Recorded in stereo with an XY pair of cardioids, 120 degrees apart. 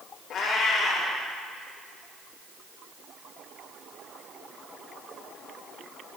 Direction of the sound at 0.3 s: 65° left.